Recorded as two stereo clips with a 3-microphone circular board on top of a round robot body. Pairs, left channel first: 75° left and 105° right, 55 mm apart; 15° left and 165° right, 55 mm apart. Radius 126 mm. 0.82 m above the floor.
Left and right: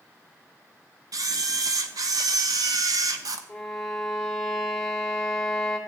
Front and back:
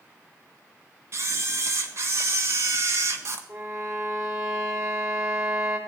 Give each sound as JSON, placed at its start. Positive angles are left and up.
{"t": 1.1, "sound": "a camera shutter", "azimuth_deg": -125, "distance_m": 0.6}
{"t": 3.5, "sound": "a violin", "azimuth_deg": 160, "distance_m": 2.0}